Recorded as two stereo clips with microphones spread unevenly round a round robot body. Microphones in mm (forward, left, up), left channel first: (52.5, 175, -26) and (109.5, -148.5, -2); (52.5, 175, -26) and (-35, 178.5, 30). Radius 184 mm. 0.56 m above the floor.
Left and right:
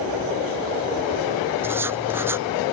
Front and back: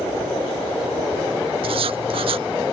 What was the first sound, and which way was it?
Writing, 165° right.